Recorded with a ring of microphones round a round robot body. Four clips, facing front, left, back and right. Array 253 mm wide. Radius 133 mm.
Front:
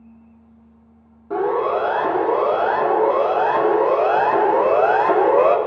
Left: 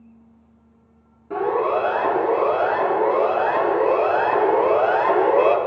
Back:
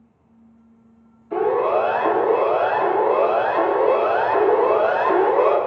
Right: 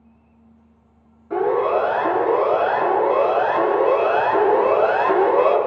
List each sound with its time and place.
1.3 s a siren: 25° left, 3.5 m; by 5.6 s 20° left, 1.5 m